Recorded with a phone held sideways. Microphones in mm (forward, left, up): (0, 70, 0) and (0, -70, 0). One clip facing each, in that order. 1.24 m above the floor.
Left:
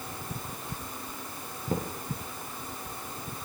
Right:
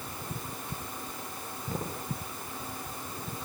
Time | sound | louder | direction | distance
1.7 | a thud | left 5 dB | 45° left (ahead or behind) | 9 m